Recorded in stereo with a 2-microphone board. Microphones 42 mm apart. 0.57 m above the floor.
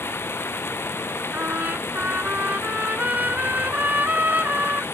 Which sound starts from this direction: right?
A trumpet, at 1.3 s.